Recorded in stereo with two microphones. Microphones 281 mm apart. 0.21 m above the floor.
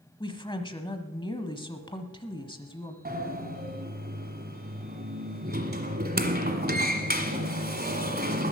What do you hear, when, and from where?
0.2 s a woman speaking: 15° left (ahead or behind), 1.0 m
3.0 s a sliding door: 35° right (ahead or behind), 1.4 m